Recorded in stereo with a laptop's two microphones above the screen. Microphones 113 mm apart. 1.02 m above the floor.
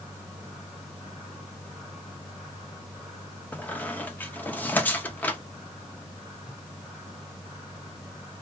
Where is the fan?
5° right (ahead or behind), 1.5 m.